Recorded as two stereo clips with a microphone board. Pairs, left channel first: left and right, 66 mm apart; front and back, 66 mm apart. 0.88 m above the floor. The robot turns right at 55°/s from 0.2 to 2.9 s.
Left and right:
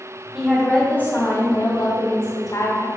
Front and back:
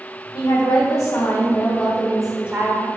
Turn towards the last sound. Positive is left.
turn(degrees=130)